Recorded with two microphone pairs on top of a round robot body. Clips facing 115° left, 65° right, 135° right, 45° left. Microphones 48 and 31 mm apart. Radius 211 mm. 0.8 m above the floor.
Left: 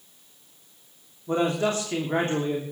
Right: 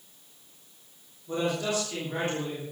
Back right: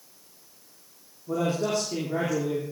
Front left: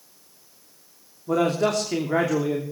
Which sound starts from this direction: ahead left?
A man speaking, at 1.3 s.